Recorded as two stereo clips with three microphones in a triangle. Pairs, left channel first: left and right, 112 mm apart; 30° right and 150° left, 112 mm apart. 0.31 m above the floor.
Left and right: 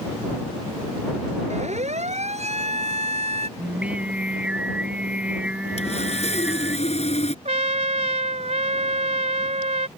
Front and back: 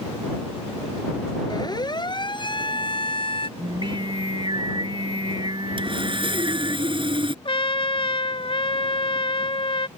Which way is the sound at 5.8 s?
110° left.